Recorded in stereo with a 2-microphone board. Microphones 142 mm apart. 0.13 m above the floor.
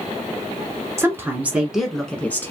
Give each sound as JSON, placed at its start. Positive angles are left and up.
{"t": 1.0, "sound": "a woman speaking", "side_deg": -20, "distance_m": 1.2}